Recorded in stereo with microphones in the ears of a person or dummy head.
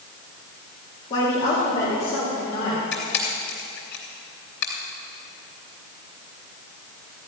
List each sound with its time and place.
1.1 s a woman speaking: 35° left (ahead or behind), 2.5 m; by 2.8 s 40° left (ahead or behind), 4 m
2.9 s a camera shutter: 65° left (ahead or behind), 3 m